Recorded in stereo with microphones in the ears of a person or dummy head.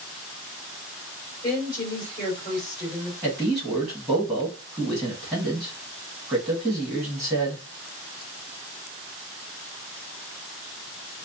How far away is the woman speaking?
About 3.5 m.